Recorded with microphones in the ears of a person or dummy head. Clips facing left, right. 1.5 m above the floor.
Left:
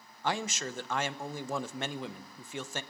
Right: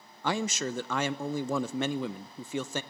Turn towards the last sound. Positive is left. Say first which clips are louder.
# right 4 dB
turn(degrees=-70)  # may be behind; listen again after turning